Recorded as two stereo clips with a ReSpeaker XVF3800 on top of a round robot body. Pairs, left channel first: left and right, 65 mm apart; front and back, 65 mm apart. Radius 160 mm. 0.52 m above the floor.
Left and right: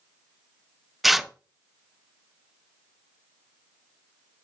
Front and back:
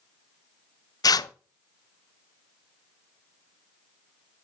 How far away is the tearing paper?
About 0.5 m.